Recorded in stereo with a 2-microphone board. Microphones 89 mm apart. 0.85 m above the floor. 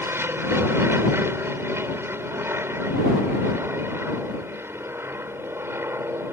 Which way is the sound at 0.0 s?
25° right (ahead or behind).